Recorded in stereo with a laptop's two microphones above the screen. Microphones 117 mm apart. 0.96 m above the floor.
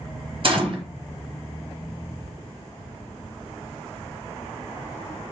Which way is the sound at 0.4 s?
50° right (ahead or behind).